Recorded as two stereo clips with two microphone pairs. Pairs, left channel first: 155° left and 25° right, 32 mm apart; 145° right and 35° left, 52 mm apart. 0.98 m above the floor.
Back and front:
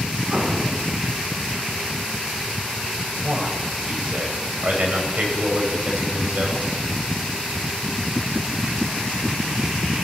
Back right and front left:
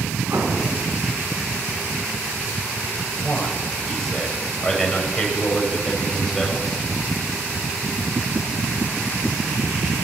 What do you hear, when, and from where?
0.3 s an explosion: 25° left, 3.5 m
3.2 s a man speaking: 60° right, 4.5 m